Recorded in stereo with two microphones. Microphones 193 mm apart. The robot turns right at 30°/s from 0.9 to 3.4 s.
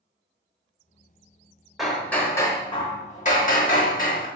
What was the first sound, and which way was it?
Hammering, straight ahead.